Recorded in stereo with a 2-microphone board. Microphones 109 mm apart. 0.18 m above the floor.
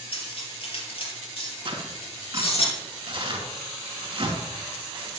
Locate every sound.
0.1 s cutlery clinking: 55° left (ahead or behind), 2 m
1.6 s tearing paper: 45° right (ahead or behind), 2.0 m